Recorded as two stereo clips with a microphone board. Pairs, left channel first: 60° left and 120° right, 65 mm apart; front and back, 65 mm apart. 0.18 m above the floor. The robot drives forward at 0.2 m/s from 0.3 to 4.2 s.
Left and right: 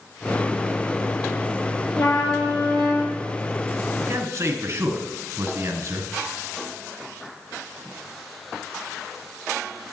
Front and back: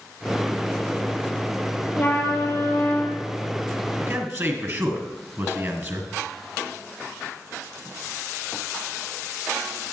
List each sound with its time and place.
1.9 s a trumpet: 55° left, 2.5 m; by 3.2 s 60° left, 2.5 m
4.0 s a man speaking: 150° right, 1.7 m